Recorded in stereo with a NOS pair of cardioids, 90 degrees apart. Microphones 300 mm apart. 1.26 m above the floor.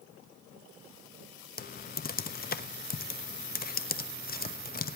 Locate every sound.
1.6 s typing on a keyboard: 30° left, 1.1 m